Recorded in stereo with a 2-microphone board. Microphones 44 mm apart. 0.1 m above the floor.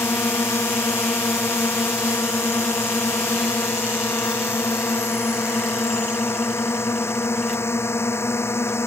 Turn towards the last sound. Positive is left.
turn(degrees=75)  # may be behind; listen again after turning